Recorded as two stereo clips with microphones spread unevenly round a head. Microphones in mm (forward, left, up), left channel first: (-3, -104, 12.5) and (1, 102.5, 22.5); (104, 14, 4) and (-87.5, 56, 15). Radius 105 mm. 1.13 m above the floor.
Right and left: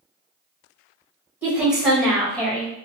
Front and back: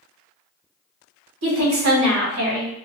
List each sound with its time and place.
1.4 s a woman speaking: 170° left, 1.9 m; by 2.7 s 165° right, 1.7 m